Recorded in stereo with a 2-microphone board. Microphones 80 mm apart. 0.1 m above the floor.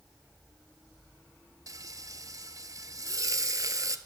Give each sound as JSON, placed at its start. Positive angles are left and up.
{"t": 1.7, "sound": "frying", "side_deg": -45, "distance_m": 0.7}